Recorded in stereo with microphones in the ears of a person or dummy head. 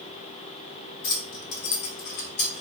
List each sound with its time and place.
1.0 s keys jangling: 60° left (ahead or behind), 1.0 m; by 2.6 s 25° left (ahead or behind), 0.9 m